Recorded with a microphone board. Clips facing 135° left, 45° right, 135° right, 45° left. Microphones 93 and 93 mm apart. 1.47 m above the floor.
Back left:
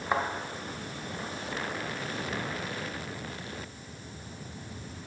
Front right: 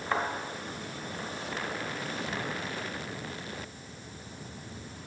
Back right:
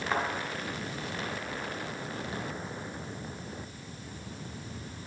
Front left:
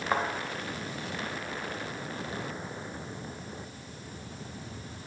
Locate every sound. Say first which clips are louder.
0.1 s a thud: back left 2 dB, front left 2 dB; 90° left, 1.1 m